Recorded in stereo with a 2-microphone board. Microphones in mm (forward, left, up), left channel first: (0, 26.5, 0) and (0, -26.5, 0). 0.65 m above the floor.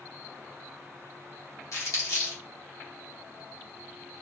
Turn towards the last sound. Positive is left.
turn(degrees=75)  # may be behind; listen again after turning